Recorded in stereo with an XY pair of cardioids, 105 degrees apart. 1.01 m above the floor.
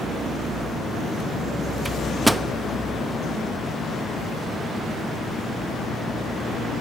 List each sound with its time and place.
1.9 s a microwave: 15° right, 0.9 m